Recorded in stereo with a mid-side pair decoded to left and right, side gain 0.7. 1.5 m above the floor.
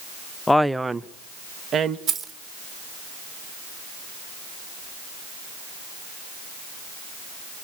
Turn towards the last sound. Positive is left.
turn(degrees=-40)